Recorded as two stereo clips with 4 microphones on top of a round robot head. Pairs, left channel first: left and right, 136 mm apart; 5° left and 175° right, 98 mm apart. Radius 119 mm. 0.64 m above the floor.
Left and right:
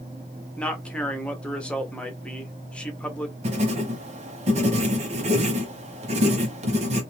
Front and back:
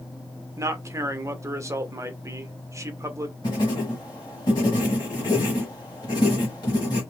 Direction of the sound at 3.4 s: 55° right.